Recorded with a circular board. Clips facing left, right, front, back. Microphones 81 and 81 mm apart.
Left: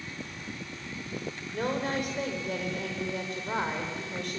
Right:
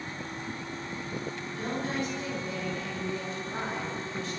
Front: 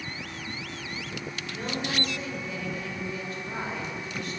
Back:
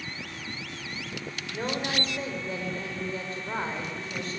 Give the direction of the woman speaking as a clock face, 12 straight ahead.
8 o'clock.